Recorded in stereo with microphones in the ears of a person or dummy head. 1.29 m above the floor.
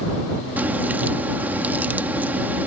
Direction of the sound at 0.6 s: 5° right (ahead or behind).